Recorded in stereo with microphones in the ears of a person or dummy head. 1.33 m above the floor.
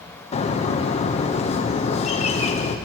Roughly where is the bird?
Left.